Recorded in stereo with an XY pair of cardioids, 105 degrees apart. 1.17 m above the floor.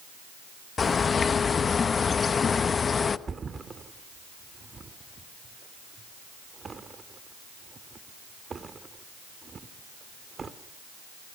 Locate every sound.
0.8 s a bird: 40° left, 1.0 m
3.3 s a thud: 35° right, 1.9 m